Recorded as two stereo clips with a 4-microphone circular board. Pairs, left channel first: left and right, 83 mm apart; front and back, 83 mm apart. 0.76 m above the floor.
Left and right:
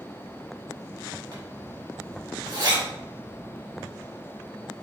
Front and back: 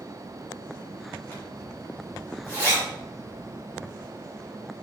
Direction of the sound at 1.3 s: 70° right.